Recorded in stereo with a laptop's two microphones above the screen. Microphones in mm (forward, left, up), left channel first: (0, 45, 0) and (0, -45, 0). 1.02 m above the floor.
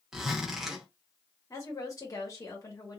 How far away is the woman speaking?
About 1.2 m.